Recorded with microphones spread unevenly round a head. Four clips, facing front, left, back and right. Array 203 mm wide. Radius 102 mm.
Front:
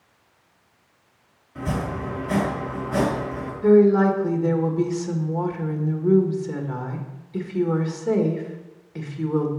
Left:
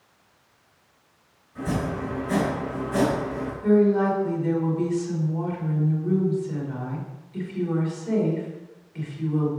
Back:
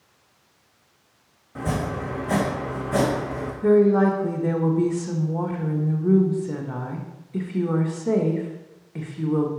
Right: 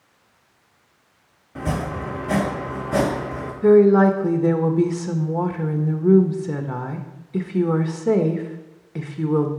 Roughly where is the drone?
I don't hear a drone.